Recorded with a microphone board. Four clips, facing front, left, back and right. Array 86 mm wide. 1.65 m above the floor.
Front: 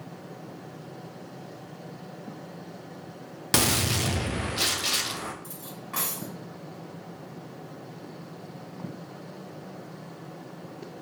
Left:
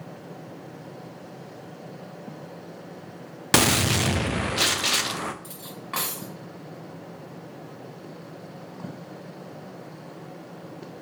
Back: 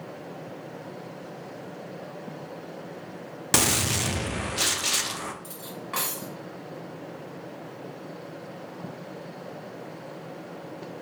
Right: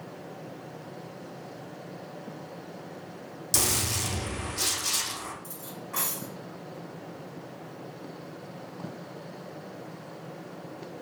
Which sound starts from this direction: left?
A gunshot, at 3.5 s.